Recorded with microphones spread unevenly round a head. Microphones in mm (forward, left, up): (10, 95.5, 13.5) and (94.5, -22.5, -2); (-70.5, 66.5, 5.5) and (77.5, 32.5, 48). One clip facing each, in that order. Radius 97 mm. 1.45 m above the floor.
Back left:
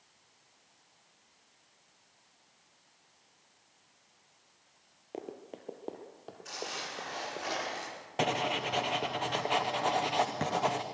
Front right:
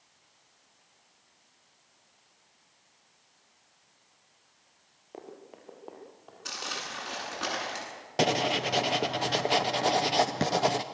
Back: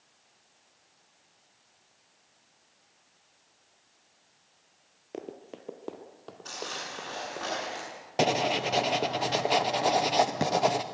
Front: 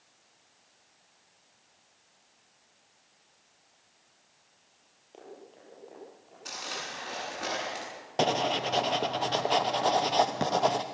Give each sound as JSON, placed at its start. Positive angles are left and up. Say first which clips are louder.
{"t": 5.1, "sound": "running footsteps", "louder": "back left 3 dB, back 8 dB", "azimuth_deg": 170, "distance_m": 1.7}
{"t": 6.5, "sound": "crumpling", "louder": "front right 1 dB, back 1 dB", "azimuth_deg": -95, "distance_m": 8.5}
{"t": 8.2, "sound": "writing", "louder": "front right 5 dB, back 1 dB", "azimuth_deg": -115, "distance_m": 0.6}